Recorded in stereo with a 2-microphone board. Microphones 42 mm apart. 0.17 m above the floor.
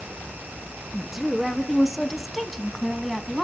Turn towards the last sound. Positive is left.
turn(degrees=5)  # may be behind; listen again after turning